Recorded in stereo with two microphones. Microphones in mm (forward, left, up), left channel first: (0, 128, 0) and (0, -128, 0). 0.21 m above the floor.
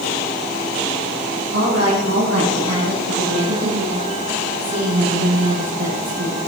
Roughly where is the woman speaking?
Right.